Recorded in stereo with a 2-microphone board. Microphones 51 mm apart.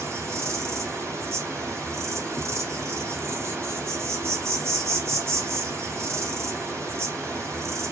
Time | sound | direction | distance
0.0 | an insect | 65° right (ahead or behind) | 0.8 m